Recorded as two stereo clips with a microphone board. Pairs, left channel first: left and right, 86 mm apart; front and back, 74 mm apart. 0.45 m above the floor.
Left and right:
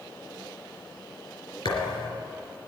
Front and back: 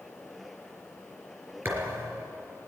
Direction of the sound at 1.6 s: 115° left.